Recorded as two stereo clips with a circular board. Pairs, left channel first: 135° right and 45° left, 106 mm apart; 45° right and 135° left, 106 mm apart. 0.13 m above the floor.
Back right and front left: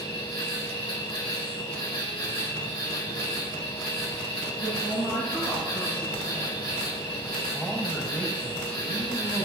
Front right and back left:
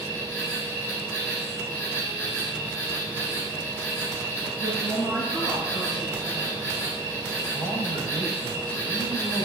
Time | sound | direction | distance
0.0 | an insect | 110° right | 4.5 m
4.6 | a man speaking | 140° right | 6.5 m
7.5 | a man speaking | 160° left | 5 m